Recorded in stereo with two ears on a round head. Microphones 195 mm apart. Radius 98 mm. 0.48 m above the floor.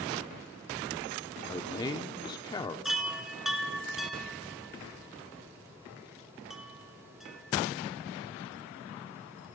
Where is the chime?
Centre (ahead or behind), 1.6 m.